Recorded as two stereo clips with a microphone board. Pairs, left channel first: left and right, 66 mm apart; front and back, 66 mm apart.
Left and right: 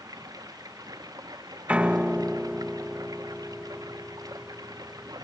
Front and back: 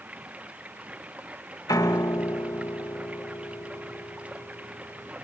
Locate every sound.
0.0 s running water: 110° right
1.7 s a piano: 20° right